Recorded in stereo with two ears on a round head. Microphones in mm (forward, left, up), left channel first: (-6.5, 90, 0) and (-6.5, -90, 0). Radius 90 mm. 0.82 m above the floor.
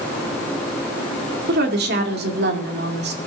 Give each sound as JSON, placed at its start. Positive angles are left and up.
{"t": 1.5, "sound": "a woman speaking", "side_deg": -55, "distance_m": 2.5}